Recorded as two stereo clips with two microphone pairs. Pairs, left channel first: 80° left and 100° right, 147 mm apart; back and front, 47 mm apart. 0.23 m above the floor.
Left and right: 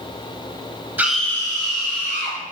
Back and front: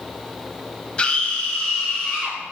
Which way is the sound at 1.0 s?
155° right.